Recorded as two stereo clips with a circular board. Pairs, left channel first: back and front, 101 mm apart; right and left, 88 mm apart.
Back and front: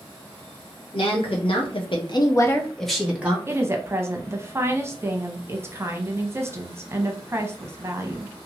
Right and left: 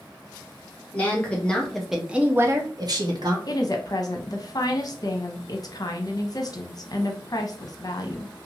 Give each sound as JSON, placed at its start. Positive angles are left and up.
{"t": 0.9, "sound": "a woman speaking", "azimuth_deg": -160, "distance_m": 1.2}
{"t": 3.5, "sound": "a woman speaking", "azimuth_deg": -60, "distance_m": 0.7}